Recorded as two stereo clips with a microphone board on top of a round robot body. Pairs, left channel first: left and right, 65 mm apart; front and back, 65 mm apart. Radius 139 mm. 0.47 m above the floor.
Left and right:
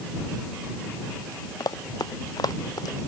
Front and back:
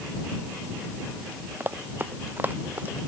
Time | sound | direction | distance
1.6 | running footsteps | 120° left | ?